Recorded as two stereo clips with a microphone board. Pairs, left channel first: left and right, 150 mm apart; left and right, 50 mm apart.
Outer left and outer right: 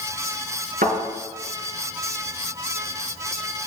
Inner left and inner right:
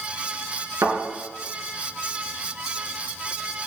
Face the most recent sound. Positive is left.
turn(degrees=-80)